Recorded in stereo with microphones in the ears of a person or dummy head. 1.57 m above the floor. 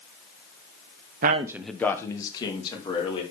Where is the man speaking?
50° right (ahead or behind), 0.5 m; by 3.2 s 35° left (ahead or behind), 3 m.